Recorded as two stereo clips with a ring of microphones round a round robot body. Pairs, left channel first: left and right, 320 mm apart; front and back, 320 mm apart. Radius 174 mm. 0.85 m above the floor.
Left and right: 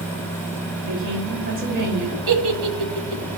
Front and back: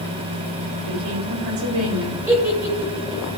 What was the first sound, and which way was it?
A woman speaking, 155° right.